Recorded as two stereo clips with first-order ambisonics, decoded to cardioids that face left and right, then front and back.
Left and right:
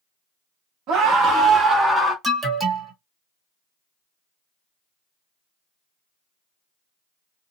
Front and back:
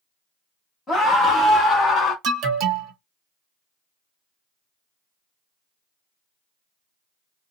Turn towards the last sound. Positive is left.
turn(degrees=-160)